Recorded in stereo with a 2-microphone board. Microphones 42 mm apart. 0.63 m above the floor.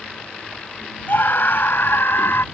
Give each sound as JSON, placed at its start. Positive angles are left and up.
{"t": 1.1, "sound": "a scream", "side_deg": 55}